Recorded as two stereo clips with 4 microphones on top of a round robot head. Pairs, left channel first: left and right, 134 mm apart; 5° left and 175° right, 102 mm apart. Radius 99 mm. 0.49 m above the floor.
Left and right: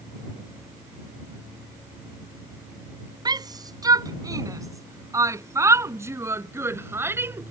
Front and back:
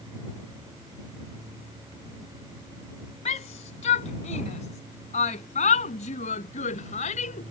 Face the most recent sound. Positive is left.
turn(degrees=-15)